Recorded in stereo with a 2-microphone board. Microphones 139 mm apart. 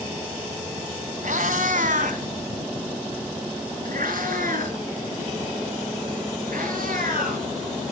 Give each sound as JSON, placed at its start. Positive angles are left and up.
{"t": 1.2, "sound": "a cat meowing", "side_deg": -75, "distance_m": 2.0}